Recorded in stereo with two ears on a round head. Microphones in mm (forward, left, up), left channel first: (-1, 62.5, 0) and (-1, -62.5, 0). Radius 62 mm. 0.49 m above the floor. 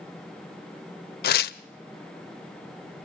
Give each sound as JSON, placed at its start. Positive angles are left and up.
{"t": 1.2, "sound": "tearing paper", "side_deg": 75, "distance_m": 0.5}